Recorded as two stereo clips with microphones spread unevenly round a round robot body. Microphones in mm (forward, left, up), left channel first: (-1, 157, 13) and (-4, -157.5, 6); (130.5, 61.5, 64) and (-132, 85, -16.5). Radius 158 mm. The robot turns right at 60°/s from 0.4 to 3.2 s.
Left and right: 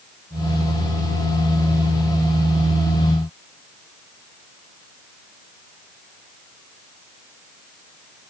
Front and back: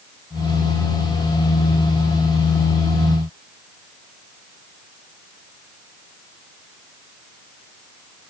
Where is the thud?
I don't hear a thud.